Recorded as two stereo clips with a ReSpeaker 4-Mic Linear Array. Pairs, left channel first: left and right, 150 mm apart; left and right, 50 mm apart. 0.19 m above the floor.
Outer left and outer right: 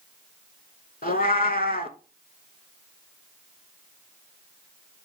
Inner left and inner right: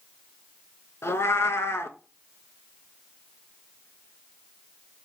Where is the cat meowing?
70° left (ahead or behind), 0.5 m.